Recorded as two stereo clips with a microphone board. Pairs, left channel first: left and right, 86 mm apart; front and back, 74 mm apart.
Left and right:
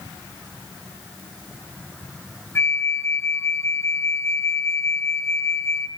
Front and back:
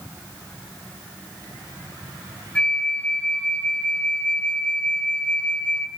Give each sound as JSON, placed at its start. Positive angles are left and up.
{"t": 2.5, "sound": "a flute", "azimuth_deg": 65, "distance_m": 0.8}